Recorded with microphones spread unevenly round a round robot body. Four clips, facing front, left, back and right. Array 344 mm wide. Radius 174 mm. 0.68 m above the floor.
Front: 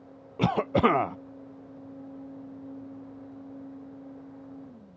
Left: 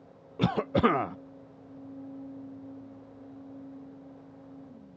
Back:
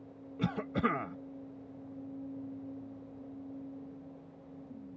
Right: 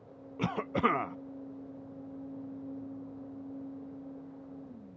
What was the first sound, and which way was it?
A cough, 50° left.